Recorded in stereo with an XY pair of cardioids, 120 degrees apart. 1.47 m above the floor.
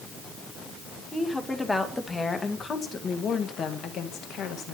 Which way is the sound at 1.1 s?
10° left.